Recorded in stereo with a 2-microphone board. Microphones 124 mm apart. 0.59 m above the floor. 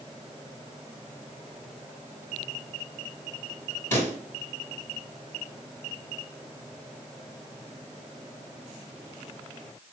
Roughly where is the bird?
No bird in this recording.